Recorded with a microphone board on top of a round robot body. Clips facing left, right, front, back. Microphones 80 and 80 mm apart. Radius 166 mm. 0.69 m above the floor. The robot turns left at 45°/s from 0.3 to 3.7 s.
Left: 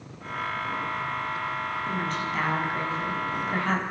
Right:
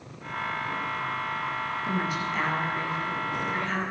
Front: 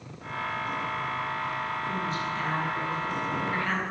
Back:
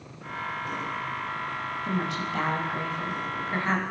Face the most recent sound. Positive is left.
turn(degrees=115)